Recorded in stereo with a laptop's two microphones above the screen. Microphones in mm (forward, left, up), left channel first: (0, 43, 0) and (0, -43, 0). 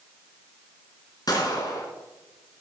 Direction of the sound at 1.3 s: 50° left (ahead or behind).